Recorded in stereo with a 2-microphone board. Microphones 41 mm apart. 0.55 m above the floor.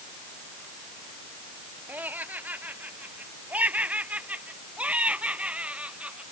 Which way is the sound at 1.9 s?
45° right (ahead or behind).